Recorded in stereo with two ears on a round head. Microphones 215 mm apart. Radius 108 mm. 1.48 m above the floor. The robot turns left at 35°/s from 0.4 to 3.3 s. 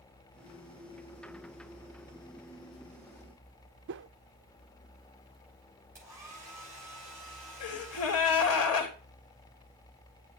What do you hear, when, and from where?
3.9 s a whoosh: 50° right (ahead or behind), 0.5 m
6.0 s a hair dryer: 10° right (ahead or behind), 7.5 m
7.6 s a gasp: 65° left (ahead or behind), 3 m